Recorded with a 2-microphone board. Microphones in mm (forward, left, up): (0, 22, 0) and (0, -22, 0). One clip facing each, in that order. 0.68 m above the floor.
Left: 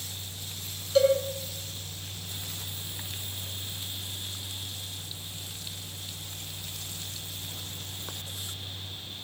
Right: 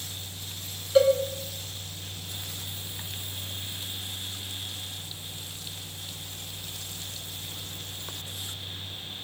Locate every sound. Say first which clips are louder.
0.9 s a cowbell: right 2 dB; 20° right (ahead or behind), 4.5 m